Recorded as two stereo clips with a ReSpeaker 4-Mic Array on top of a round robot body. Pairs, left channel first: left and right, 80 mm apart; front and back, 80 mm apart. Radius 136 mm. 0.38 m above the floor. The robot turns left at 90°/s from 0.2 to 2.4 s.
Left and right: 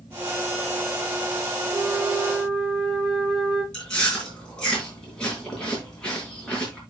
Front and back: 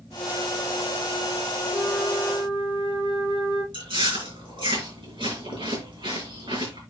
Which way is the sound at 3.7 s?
170° left.